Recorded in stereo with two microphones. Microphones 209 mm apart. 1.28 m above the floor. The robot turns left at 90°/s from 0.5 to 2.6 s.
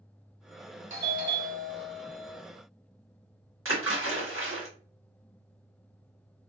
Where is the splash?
75° right (ahead or behind), 1.2 m.